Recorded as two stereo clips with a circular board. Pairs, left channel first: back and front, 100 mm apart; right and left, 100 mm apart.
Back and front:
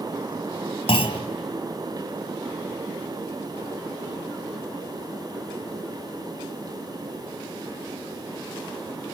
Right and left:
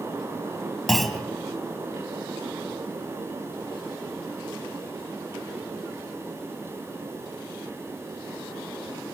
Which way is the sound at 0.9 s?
Straight behind.